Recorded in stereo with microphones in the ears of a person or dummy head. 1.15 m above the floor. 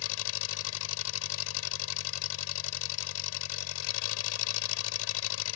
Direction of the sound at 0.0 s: 75° left (ahead or behind).